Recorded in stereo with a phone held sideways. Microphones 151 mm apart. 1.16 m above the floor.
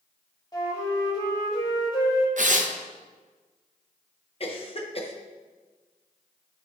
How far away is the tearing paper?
About 0.7 m.